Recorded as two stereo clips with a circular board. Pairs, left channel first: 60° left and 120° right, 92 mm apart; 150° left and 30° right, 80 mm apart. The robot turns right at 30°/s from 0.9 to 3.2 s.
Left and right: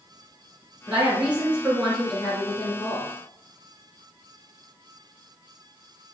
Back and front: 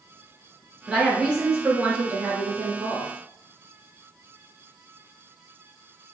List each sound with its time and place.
0.9 s a woman speaking: 70° right, 1.1 m; by 3.1 s 5° right, 1.1 m